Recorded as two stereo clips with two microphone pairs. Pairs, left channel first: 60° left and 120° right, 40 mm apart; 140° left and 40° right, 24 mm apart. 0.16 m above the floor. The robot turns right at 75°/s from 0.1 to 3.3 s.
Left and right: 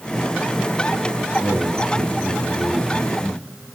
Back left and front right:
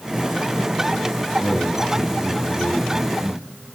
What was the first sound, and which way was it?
A man speaking, 170° right.